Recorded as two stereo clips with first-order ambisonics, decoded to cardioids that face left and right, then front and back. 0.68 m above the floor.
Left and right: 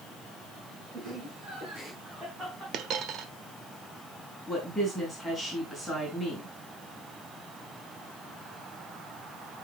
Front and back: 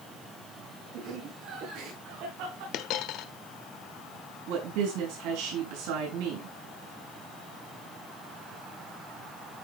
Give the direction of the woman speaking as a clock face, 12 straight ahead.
6 o'clock.